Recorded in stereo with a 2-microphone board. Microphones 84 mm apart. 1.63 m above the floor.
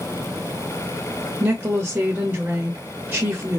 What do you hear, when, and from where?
1.4 s a woman speaking: 20° right (ahead or behind), 0.9 m